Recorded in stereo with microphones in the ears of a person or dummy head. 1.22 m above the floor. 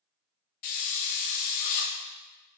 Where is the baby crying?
No baby crying in this recording.